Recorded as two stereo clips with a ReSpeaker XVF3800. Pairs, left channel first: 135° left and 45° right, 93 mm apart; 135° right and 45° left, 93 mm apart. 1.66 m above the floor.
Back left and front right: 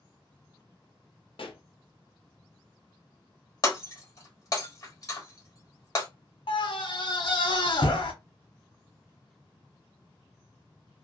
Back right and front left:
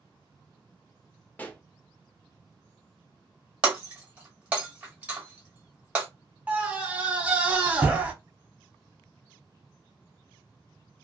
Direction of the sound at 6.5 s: 120° left.